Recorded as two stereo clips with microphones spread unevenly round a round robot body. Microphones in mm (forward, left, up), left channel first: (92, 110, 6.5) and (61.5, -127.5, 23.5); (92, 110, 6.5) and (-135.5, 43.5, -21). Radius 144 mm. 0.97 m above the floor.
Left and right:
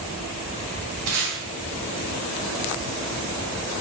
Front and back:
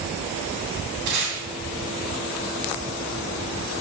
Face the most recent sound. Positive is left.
turn(degrees=-140)